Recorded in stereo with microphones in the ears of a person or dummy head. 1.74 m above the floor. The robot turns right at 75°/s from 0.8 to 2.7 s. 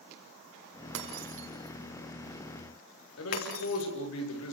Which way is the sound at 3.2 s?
80° left.